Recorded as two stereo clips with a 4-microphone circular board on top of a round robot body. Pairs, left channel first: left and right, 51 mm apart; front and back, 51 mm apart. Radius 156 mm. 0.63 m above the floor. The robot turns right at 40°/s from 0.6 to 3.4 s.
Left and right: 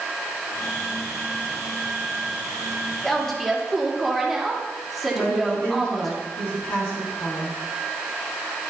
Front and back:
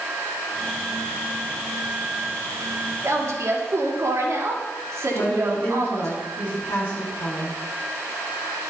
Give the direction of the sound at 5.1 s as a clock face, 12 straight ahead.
10 o'clock.